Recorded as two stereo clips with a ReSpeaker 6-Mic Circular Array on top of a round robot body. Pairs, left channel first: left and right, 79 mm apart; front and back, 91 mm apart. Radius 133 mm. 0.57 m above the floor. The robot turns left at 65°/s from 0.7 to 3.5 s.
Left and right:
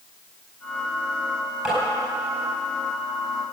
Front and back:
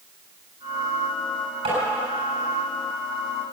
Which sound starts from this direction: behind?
Tapping, at 1.6 s.